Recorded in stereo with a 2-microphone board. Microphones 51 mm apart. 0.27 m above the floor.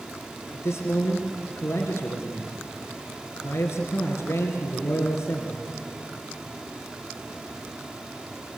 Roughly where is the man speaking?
Left.